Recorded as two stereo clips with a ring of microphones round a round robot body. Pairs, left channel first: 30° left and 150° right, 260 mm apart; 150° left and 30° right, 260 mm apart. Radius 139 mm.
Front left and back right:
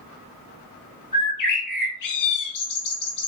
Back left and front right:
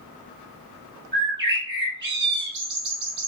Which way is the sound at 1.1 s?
20° left.